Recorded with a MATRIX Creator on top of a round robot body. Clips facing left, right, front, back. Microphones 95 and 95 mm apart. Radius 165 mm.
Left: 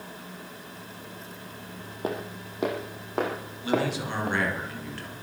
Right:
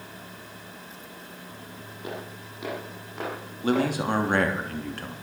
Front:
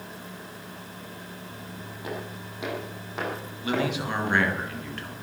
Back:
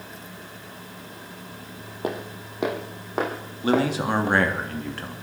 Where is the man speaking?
130° right, 3 m.